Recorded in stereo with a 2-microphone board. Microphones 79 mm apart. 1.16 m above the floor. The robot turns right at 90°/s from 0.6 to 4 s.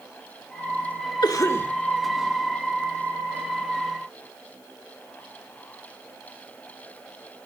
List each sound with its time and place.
1.2 s a cough: 120° left, 1.8 m; by 1.7 s 165° left, 1.8 m